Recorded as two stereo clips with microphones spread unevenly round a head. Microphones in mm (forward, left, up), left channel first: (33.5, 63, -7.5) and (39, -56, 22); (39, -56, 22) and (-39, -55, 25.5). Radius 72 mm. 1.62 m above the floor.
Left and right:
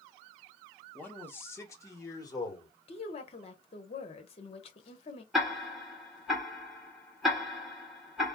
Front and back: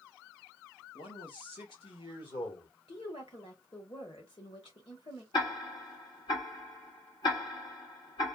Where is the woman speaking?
55° left, 1.2 m.